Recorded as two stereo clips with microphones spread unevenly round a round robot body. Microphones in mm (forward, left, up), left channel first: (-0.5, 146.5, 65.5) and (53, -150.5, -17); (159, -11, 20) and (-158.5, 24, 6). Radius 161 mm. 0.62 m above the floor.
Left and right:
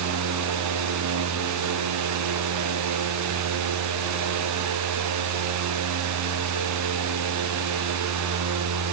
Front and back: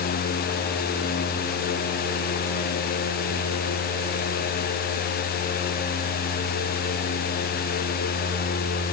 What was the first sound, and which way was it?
Only background noise.